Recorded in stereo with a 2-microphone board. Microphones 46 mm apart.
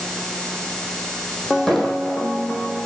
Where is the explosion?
10° left (ahead or behind), 3 m.